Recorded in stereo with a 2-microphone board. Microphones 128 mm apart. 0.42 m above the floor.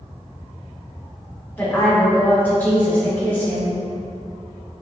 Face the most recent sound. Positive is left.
turn(degrees=15)  # may be behind; listen again after turning